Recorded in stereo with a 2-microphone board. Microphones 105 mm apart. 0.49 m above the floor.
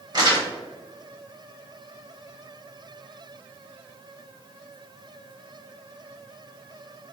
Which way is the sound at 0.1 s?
40° right (ahead or behind).